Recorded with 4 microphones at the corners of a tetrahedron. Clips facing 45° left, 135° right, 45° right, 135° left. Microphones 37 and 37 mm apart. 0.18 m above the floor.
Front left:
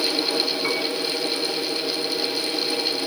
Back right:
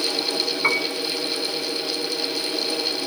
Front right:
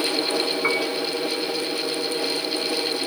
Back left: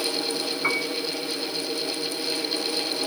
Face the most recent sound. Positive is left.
turn(degrees=-125)